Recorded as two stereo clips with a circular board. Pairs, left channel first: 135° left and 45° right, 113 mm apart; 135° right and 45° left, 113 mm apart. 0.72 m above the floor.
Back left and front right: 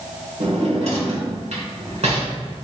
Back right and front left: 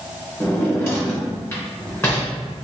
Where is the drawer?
65° right, 1.4 m.